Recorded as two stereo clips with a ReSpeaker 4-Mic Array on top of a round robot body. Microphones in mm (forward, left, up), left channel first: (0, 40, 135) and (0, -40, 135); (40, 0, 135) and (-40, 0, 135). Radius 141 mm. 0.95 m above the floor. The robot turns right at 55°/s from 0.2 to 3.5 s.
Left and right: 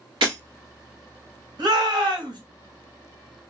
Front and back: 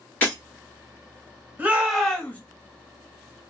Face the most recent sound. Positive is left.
turn(degrees=-10)